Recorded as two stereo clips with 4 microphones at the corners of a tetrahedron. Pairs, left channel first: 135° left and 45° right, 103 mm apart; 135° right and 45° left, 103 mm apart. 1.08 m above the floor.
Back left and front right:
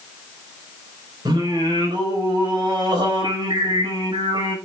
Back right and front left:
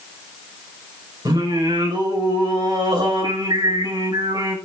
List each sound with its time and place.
1.2 s singing: straight ahead, 4.5 m